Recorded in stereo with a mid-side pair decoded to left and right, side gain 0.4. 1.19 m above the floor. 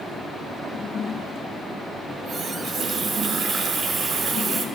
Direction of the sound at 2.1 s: 60° right.